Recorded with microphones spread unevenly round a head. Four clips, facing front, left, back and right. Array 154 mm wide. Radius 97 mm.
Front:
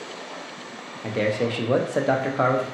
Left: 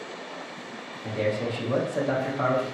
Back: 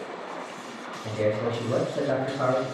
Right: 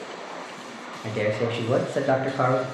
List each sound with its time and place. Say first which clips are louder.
1.0 s a man speaking: right 2 dB, front 2 dB; 25° right, 0.7 m